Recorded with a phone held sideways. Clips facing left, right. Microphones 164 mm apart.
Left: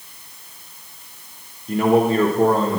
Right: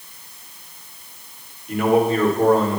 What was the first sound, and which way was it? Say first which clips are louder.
A man speaking: left 1 dB; 35° left (ahead or behind).